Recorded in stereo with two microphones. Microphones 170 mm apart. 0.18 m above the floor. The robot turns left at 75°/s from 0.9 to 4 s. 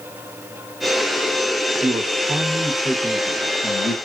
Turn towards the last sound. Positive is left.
turn(degrees=70)